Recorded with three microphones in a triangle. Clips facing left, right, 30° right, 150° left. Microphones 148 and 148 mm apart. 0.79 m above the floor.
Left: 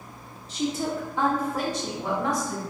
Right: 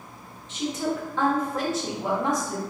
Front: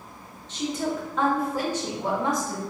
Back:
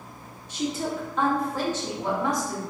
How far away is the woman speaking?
About 1.0 m.